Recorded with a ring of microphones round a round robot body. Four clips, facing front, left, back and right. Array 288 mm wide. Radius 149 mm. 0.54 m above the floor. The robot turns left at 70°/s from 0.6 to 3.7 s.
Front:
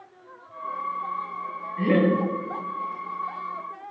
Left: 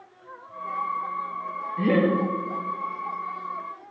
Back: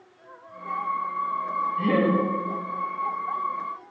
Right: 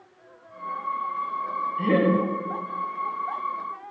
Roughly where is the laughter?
Left.